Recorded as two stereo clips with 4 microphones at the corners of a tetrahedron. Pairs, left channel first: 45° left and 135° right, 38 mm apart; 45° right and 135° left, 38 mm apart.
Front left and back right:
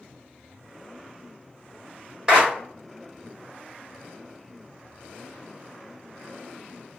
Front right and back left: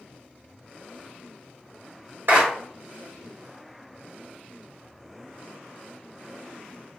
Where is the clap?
155° left, 1.5 m.